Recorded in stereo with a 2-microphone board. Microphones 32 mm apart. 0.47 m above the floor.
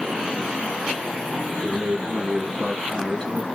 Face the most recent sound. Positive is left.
turn(degrees=15)  # may be behind; listen again after turning